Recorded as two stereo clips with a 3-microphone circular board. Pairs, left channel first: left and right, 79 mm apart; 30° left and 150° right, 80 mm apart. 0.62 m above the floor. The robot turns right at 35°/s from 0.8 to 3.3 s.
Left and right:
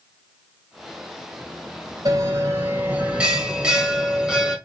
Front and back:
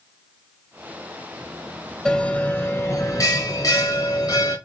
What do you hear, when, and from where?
2.0 s a bell: 55° right, 2.5 m; by 4.6 s 10° right, 2.5 m